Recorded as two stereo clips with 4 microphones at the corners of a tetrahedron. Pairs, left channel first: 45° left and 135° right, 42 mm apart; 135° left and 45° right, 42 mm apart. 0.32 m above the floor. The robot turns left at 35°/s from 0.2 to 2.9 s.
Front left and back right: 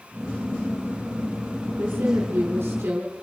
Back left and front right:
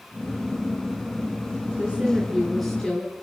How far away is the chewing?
No chewing in this recording.